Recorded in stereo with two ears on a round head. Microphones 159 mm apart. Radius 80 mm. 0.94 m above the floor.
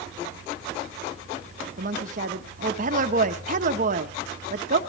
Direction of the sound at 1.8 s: 50° right (ahead or behind).